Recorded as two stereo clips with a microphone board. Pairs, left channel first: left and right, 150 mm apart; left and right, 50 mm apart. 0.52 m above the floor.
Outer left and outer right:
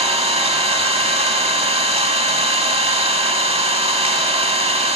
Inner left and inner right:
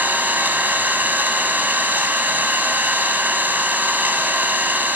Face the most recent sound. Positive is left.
turn(degrees=-45)  # may be behind; listen again after turning